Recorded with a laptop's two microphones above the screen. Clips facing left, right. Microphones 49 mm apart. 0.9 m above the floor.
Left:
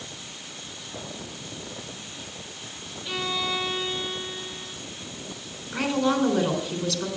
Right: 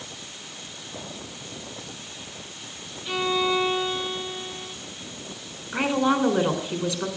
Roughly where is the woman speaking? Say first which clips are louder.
Right 2 dB; centre.